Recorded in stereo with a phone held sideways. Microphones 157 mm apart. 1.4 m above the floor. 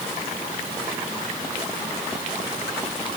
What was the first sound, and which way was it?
Only background noise.